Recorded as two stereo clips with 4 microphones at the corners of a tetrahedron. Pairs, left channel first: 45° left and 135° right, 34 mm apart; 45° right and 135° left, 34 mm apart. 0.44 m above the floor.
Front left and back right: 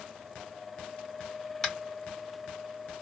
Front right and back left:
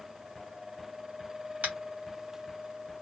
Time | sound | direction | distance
1.6 | tapping | 130° left | 0.9 m